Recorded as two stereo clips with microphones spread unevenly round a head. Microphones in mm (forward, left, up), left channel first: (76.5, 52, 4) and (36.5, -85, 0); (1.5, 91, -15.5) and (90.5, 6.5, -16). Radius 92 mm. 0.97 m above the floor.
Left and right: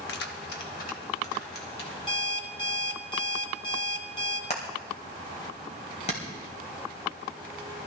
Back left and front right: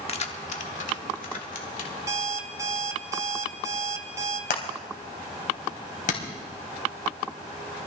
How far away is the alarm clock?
About 1.9 m.